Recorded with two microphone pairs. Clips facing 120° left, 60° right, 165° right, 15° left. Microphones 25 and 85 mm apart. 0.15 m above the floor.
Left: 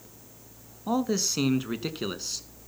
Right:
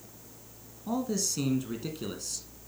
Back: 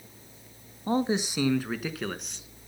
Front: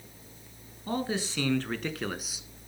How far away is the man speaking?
About 1.3 m.